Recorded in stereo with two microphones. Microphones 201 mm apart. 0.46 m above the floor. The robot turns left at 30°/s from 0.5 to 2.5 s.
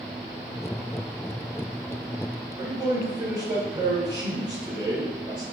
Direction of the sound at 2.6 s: 20° right (ahead or behind).